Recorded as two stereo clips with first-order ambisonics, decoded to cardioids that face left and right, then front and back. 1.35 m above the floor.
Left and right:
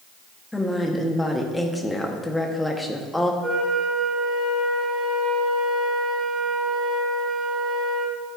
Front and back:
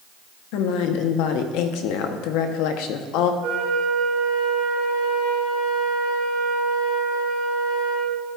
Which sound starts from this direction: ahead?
A woman speaking, at 0.5 s.